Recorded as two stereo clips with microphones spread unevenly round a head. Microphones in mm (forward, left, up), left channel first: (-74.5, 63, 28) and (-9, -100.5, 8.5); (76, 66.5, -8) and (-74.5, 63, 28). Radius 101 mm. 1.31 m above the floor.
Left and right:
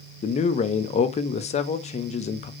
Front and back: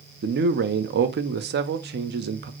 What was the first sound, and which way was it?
A man speaking, 170° left.